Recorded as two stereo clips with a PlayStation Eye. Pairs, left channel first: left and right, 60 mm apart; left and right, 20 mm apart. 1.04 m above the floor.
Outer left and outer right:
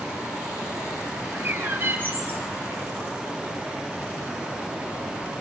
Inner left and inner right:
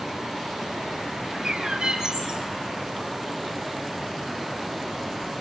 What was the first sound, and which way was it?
A bird, 35° right (ahead or behind).